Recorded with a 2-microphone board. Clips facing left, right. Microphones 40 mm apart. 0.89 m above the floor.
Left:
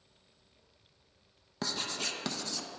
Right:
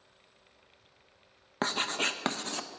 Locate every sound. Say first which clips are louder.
1.6 s writing: right 6 dB; 40° right (ahead or behind), 0.5 m